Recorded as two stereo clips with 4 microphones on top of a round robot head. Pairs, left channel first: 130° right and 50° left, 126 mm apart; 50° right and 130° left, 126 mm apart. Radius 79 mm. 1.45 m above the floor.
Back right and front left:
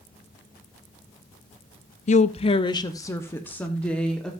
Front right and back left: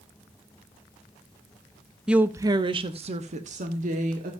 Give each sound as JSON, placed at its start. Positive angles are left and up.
{"t": 2.1, "sound": "a woman speaking", "azimuth_deg": -145, "distance_m": 0.6}